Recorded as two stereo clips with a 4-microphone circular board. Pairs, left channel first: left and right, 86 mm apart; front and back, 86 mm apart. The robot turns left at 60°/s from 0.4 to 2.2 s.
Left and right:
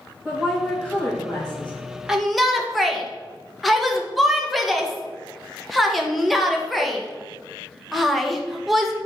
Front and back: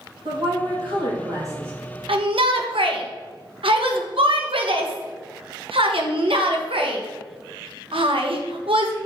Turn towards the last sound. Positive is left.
turn(degrees=180)